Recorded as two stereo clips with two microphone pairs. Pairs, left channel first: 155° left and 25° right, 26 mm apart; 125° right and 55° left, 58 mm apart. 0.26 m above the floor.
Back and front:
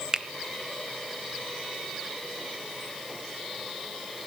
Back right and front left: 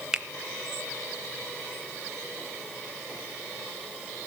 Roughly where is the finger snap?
Ahead.